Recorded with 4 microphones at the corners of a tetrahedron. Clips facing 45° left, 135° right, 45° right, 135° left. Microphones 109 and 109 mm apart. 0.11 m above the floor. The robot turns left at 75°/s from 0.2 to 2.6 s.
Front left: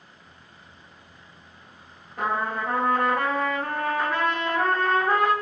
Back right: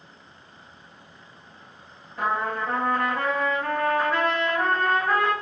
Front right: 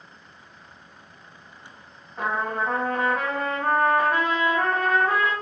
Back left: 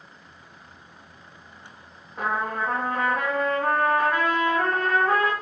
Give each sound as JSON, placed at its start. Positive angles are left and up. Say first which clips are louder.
{"t": 2.2, "sound": "a trumpet", "louder": "even, even", "azimuth_deg": 55, "distance_m": 2.0}